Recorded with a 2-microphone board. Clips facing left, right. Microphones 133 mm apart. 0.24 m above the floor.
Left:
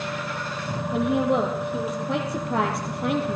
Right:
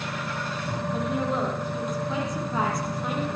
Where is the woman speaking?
75° left (ahead or behind), 8 m; by 3.4 s 80° left, 6 m.